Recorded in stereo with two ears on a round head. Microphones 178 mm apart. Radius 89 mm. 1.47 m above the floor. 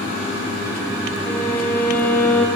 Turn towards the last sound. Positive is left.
turn(degrees=10)  # may be behind; listen again after turning